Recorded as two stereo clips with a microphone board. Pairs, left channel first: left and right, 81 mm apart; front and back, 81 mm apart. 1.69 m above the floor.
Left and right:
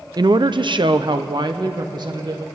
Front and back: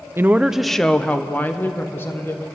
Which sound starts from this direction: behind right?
A woman speaking, at 0.2 s.